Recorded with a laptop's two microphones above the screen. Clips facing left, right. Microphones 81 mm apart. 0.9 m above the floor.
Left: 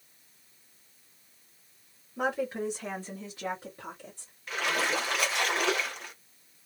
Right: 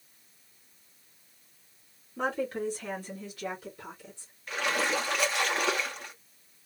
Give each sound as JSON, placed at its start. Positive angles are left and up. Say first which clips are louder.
{"t": 2.2, "sound": "a woman speaking", "louder": "left 1 dB", "side_deg": 5, "distance_m": 2.0}
{"t": 4.5, "sound": "a splash", "louder": "even", "side_deg": 0, "distance_m": 1.3}